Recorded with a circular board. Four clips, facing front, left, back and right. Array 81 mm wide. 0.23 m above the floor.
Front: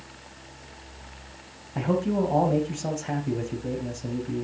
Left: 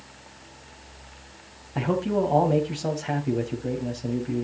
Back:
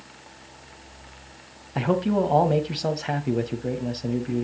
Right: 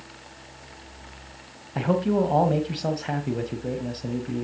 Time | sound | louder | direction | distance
1.8 | a man speaking | right 2 dB, back 2 dB | 160° right | 1.1 m